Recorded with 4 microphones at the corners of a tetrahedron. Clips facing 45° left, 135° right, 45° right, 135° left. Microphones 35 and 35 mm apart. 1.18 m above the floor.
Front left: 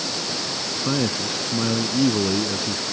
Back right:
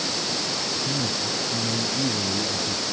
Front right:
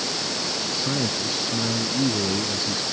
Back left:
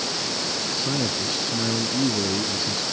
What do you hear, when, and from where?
0.8 s a man speaking: 40° left